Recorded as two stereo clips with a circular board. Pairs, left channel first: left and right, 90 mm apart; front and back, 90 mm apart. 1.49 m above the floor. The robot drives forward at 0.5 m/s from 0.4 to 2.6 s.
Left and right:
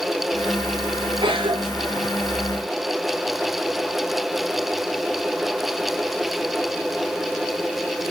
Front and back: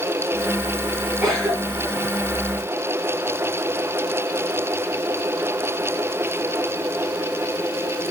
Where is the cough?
120° right, 6 m; by 2.0 s 125° right, 6.5 m.